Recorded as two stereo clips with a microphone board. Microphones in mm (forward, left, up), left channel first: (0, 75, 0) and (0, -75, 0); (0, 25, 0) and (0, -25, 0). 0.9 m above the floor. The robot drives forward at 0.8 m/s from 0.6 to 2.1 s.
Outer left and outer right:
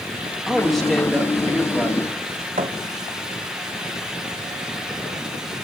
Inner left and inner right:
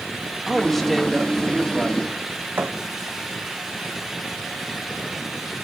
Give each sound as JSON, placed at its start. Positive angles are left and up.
{"t": 0.5, "sound": "a woman speaking", "side_deg": 0, "distance_m": 1.3}
{"t": 2.6, "sound": "a thud", "side_deg": -60, "distance_m": 1.5}